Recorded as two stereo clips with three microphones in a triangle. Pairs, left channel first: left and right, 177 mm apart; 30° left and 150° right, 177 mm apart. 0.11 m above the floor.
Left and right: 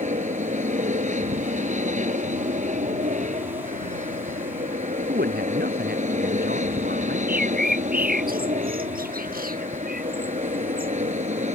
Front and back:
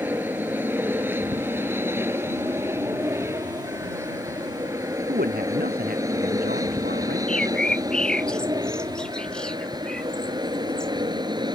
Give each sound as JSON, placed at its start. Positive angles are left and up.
{"t": 0.0, "sound": "an aircraft", "azimuth_deg": -75}
{"t": 5.1, "sound": "a man speaking", "azimuth_deg": -120}
{"t": 7.3, "sound": "a bird", "azimuth_deg": -55}